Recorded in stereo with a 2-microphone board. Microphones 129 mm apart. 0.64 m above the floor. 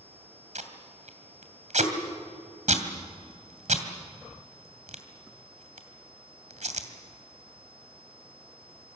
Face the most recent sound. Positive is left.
turn(degrees=-70)  # may be behind; listen again after turning